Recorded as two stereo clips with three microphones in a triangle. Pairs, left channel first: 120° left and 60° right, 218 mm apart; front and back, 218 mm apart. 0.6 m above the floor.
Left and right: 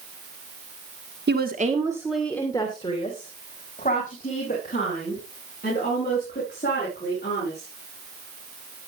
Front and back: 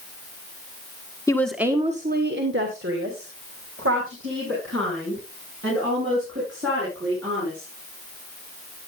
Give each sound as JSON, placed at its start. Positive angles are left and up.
{"t": 1.3, "sound": "a woman speaking", "azimuth_deg": -70, "distance_m": 1.4}